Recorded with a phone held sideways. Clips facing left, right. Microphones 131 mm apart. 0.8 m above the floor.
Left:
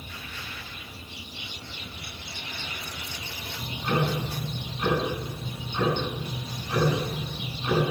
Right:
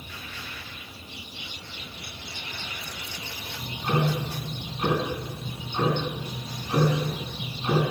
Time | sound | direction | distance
3.6 | ticking | 30° right (ahead or behind) | 9.5 m